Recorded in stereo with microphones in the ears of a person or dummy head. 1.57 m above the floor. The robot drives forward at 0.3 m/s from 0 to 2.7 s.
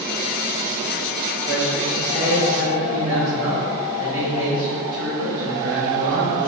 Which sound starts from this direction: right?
A man speaking, at 1.5 s.